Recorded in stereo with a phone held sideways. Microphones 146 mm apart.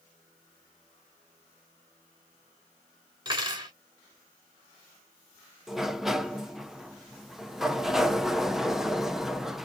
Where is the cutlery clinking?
30° right (ahead or behind), 2.5 m.